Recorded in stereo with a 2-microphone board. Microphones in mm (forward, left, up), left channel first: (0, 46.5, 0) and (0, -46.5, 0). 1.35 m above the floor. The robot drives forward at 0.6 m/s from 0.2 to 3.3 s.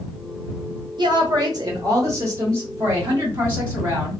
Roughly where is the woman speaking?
Right.